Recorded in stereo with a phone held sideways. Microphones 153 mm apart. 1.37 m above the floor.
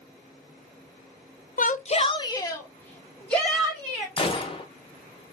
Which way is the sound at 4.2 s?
35° left (ahead or behind).